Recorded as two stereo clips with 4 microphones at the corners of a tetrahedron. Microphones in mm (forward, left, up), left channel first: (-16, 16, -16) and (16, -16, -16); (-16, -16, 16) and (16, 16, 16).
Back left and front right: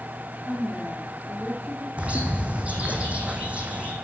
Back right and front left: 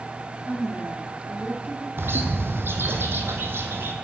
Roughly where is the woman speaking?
Behind.